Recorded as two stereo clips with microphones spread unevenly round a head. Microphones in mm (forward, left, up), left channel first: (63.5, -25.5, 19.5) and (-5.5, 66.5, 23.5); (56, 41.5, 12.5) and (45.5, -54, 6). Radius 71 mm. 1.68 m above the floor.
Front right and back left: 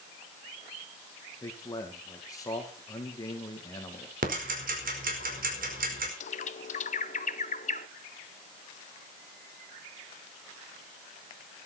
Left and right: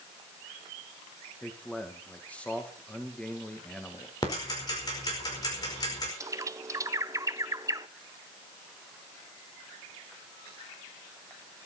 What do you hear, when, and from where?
1.4 s a man speaking: 5° left, 2 m
4.2 s ticking: 150° left, 4.5 m
6.2 s a bird: 40° right, 0.9 m